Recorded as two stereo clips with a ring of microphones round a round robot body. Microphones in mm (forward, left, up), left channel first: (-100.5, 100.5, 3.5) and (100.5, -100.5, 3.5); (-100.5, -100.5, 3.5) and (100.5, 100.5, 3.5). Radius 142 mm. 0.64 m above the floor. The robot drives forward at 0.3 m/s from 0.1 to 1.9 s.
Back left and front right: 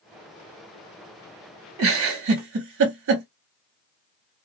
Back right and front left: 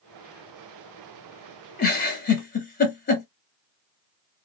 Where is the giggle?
80° right, 0.9 m.